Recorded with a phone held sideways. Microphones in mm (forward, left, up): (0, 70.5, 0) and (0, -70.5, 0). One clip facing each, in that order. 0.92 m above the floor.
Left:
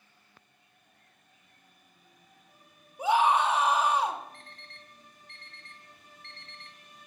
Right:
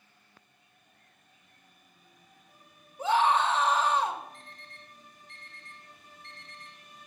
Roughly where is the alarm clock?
Left.